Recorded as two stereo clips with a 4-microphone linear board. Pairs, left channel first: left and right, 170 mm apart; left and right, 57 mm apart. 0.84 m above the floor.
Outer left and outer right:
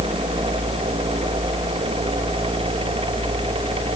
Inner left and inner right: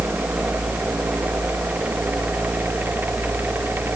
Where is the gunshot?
I don't hear a gunshot.